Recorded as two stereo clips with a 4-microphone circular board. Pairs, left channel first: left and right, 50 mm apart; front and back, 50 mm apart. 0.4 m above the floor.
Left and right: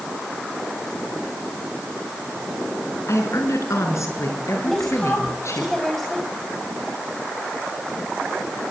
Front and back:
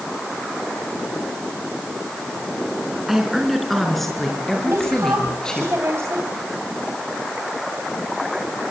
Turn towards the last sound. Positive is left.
turn(degrees=175)